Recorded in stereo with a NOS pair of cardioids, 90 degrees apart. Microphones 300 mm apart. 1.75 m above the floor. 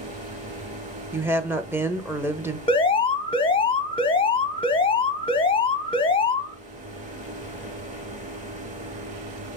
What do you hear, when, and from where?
0.0 s a fan: 25° right, 0.9 m
1.1 s a woman speaking: 10° right, 0.6 m
2.7 s an alarm: 20° left, 0.6 m